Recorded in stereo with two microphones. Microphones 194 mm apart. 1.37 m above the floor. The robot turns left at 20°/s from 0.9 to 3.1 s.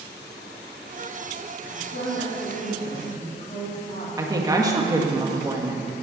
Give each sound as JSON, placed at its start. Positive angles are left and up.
{"t": 1.6, "sound": "a woman speaking", "side_deg": 70, "distance_m": 4.0}
{"t": 4.2, "sound": "a woman speaking", "side_deg": -20, "distance_m": 1.6}